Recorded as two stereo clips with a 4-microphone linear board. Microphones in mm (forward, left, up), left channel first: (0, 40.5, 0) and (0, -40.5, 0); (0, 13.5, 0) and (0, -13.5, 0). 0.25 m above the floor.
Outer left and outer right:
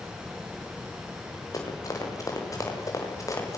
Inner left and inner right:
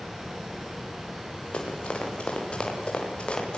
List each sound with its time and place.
1.5 s running footsteps: 45° left (ahead or behind), 9 m; by 3.6 s 40° left (ahead or behind), 7.5 m